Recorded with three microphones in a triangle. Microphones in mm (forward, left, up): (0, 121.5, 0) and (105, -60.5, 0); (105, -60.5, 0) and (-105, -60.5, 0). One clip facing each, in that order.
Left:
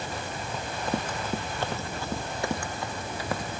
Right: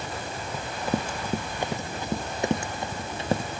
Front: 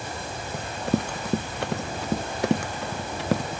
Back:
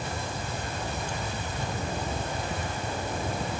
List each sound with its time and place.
0.5 s running footsteps: 25° left; by 3.6 s straight ahead